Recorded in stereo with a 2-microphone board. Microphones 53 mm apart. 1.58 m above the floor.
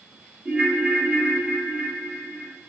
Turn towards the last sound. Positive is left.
turn(degrees=-25)  # may be behind; listen again after turning